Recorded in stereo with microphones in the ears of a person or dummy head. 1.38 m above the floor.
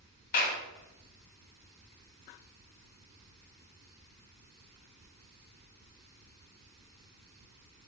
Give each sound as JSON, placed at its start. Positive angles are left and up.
{"t": 0.3, "sound": "a clap", "side_deg": 45, "distance_m": 1.8}